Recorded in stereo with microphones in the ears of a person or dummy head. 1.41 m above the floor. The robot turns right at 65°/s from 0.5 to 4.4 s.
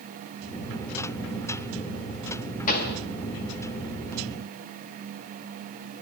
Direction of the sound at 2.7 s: 45° left (ahead or behind).